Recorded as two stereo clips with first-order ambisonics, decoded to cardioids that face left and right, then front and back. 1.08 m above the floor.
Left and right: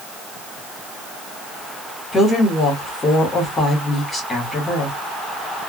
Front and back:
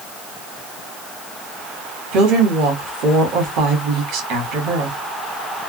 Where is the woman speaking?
160° left, 1.6 m.